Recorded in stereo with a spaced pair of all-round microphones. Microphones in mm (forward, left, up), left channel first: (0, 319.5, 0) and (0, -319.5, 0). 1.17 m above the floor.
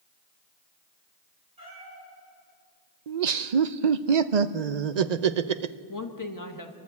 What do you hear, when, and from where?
1.6 s a cat meowing: 65° right (ahead or behind), 7 m
3.1 s laughter: 90° right, 0.8 m
5.9 s a woman speaking: 30° left (ahead or behind), 1.5 m